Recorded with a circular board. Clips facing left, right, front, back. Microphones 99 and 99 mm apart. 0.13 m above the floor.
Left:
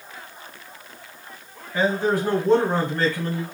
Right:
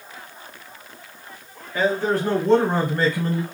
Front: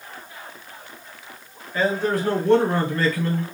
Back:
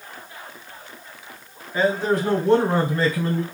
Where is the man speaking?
130° left, 1.4 m; by 3.4 s 135° right, 1.4 m.